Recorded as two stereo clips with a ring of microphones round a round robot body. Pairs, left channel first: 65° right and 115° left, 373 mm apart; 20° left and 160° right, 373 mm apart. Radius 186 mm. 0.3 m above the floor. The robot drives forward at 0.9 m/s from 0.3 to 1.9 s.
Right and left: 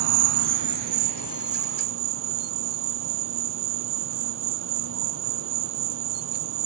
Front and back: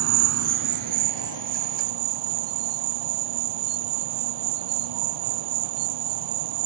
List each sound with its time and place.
0.0 s an insect: 150° left; by 6.7 s 170° left